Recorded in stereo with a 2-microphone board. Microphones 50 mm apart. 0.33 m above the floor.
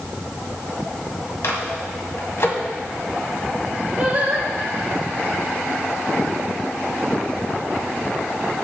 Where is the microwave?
65° left (ahead or behind), 1.8 m.